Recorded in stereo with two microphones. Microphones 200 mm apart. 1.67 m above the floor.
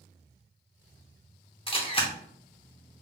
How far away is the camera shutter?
About 0.7 m.